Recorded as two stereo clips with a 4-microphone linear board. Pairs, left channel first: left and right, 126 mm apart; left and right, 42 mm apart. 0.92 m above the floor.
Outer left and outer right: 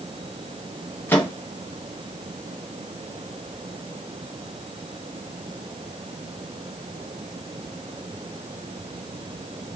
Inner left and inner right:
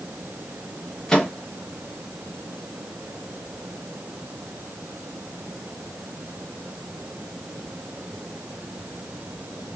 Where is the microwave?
15° left (ahead or behind), 0.9 m.